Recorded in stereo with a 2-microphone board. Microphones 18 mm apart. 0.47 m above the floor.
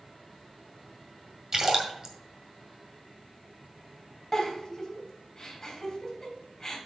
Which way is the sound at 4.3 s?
20° left (ahead or behind).